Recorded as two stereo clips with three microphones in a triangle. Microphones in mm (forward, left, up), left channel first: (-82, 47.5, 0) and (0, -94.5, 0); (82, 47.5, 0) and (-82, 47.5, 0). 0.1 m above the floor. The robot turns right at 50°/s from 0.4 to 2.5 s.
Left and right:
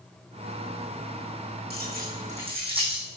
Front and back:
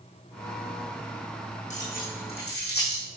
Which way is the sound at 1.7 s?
45° right.